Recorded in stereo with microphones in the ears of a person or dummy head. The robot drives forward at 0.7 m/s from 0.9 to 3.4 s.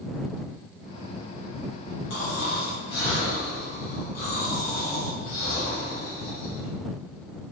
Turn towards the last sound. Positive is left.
turn(degrees=50)  # may be behind; listen again after turning